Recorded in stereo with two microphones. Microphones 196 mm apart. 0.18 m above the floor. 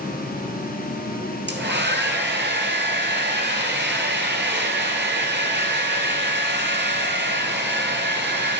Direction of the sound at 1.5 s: 65° right (ahead or behind).